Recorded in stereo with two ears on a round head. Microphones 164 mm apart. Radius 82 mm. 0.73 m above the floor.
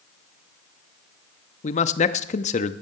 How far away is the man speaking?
About 0.8 m.